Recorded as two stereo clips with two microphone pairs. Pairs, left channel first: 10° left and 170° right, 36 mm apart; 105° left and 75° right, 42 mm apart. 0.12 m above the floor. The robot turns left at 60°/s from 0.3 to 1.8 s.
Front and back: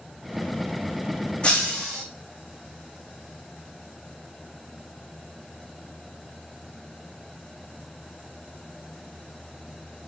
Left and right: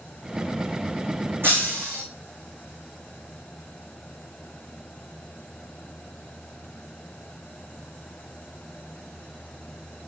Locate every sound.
1.4 s breaking glass: 45° right, 3 m; by 2.0 s 65° right, 3 m